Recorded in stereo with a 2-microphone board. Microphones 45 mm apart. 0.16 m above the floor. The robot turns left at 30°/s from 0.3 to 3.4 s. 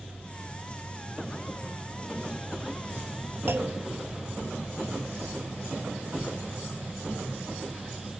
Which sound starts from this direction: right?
A clunk, at 3.5 s.